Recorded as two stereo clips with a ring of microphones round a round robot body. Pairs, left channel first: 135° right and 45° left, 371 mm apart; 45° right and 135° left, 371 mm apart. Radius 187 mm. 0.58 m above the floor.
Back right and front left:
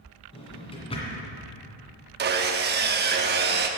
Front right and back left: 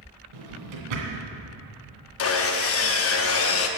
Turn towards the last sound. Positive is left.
turn(degrees=-10)